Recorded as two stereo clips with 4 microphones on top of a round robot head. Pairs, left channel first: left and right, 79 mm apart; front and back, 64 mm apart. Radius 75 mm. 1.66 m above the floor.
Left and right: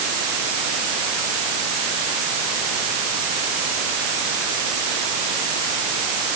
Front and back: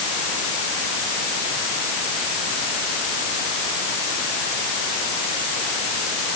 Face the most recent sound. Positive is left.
No sound to turn to.